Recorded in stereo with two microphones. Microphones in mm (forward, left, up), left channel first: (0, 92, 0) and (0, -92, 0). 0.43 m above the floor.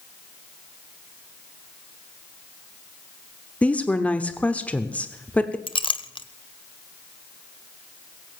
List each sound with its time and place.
3.6 s a woman speaking: 5° left (ahead or behind), 0.9 m
5.7 s a clink: 25° left (ahead or behind), 0.8 m